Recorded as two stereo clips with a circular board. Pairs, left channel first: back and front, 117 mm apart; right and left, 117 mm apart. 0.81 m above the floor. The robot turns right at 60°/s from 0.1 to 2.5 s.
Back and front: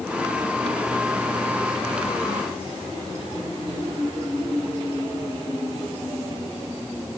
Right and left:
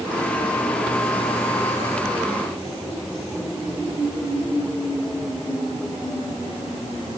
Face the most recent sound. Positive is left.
No sound to turn to.